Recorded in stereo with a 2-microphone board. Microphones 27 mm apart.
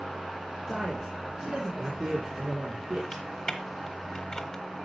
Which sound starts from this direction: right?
A man speaking, at 0.7 s.